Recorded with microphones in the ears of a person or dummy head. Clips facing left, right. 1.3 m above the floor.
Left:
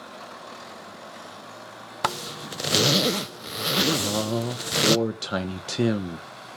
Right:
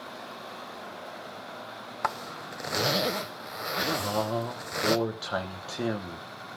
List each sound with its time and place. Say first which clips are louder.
2.0 s a zipper: left 4 dB; 45° left (ahead or behind), 0.6 m
4.0 s a man speaking: left 3 dB; 40° left (ahead or behind), 1.2 m